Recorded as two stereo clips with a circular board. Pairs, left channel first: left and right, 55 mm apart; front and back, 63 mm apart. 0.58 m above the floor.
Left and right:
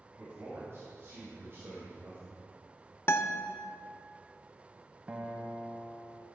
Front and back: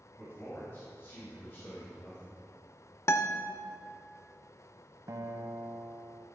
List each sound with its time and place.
0.2 s a man speaking: 50° right, 4 m
3.1 s a guitar: 45° left, 0.6 m
5.1 s a guitar: 155° right, 1.0 m